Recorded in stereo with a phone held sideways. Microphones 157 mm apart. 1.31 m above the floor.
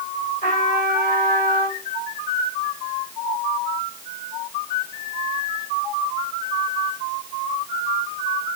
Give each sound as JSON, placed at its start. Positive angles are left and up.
{"t": 0.4, "sound": "a trumpet", "side_deg": 60, "distance_m": 4.5}